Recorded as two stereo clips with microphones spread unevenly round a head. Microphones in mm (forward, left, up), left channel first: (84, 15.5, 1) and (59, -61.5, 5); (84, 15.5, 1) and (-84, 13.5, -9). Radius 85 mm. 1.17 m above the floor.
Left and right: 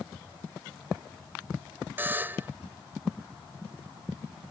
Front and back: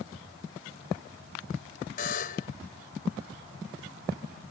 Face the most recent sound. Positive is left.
turn(degrees=-45)